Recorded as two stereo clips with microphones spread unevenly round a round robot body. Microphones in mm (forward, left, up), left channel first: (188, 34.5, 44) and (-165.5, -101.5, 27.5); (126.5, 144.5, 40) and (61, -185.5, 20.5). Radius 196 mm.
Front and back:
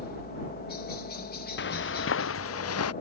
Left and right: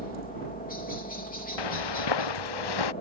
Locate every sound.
0.0 s a helicopter: 50° left
1.6 s footsteps: 85° left; by 2.9 s 75° left